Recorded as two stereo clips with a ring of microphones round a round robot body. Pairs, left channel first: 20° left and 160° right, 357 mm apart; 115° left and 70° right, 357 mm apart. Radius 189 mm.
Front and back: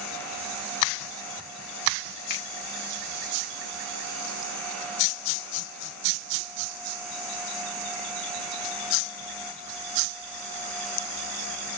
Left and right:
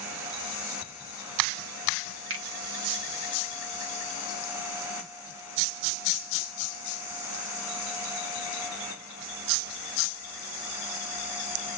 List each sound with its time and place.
2.3 s a finger snap: 30° right, 1.4 m